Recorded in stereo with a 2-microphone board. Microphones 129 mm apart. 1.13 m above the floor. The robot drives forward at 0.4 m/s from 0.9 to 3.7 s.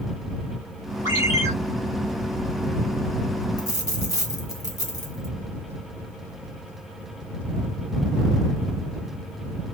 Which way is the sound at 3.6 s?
30° left (ahead or behind).